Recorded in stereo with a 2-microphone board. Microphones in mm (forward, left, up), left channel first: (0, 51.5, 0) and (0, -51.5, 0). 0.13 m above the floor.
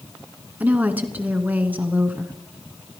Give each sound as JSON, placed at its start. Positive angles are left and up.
{"t": 0.6, "sound": "a woman speaking", "side_deg": -15, "distance_m": 1.0}